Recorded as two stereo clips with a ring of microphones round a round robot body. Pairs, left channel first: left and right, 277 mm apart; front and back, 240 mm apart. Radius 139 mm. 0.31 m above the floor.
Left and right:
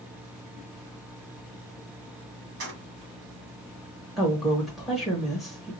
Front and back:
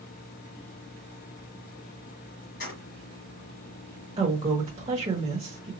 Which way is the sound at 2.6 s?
50° right.